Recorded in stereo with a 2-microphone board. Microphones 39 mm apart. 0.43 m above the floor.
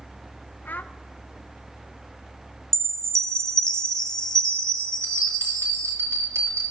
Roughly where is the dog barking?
No dog barking in this recording.